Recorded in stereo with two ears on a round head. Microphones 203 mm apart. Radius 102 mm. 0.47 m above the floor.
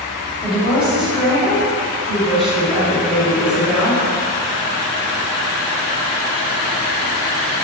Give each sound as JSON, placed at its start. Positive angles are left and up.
{"t": 0.4, "sound": "a woman speaking", "side_deg": -5, "distance_m": 2.0}